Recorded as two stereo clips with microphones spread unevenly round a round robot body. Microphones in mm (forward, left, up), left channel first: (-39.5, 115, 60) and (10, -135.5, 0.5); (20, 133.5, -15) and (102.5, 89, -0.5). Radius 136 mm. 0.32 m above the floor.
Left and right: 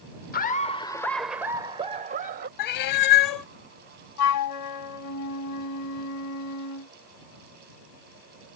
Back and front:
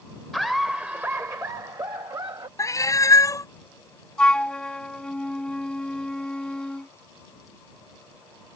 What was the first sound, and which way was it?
Laughter, 85° left.